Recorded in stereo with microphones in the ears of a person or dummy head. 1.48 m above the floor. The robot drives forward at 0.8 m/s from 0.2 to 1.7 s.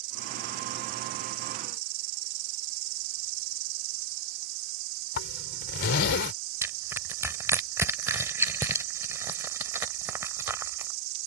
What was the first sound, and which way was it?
An insect, 50° right (ahead or behind).